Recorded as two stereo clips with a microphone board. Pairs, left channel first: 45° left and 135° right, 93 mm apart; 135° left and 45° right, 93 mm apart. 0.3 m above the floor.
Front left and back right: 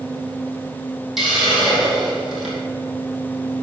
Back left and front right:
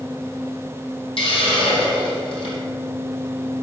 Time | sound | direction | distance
1.2 | a hiss | 140° left | 2.5 m